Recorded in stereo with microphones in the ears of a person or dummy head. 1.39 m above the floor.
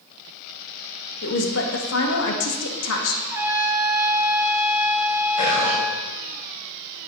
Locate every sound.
1.2 s a woman speaking: 60° left (ahead or behind), 1.9 m; by 3.1 s 85° left, 2.5 m
3.2 s a trumpet: 15° right (ahead or behind), 2 m
5.4 s whispering: 35° left (ahead or behind), 6.5 m